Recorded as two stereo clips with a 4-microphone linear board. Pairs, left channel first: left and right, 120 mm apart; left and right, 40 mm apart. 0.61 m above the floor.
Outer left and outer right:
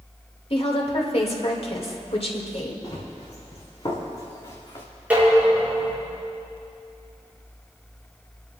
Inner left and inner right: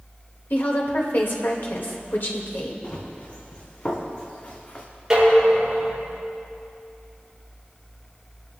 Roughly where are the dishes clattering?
Centre.